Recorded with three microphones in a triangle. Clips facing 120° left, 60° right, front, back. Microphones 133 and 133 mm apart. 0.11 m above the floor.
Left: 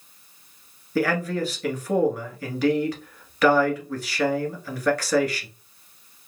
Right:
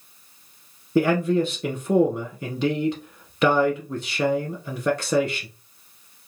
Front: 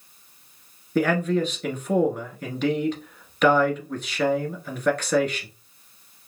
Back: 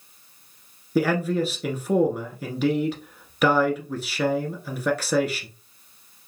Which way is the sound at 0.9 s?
105° right.